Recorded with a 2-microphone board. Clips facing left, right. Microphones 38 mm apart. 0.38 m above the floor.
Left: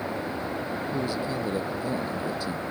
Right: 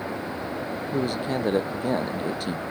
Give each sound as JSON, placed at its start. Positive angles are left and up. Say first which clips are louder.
{"t": 0.9, "sound": "a man speaking", "louder": "right 5 dB", "side_deg": -55}